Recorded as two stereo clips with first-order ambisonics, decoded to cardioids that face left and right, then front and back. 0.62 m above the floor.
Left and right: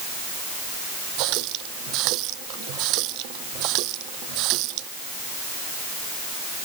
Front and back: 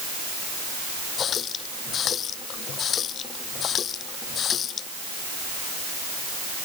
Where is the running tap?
60° right.